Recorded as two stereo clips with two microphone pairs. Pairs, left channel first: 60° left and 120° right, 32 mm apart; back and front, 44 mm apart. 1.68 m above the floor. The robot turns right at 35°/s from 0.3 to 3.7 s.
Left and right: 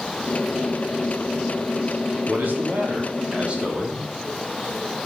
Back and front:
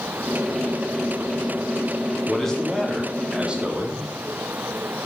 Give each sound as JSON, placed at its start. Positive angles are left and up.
{"t": 2.3, "sound": "a man speaking", "azimuth_deg": -115, "distance_m": 4.5}